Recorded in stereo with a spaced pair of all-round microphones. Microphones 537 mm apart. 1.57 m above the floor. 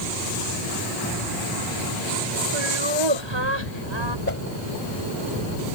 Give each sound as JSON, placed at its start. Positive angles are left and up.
{"t": 2.5, "sound": "laughter", "side_deg": -55}
{"t": 4.3, "sound": "a whoosh", "side_deg": 25}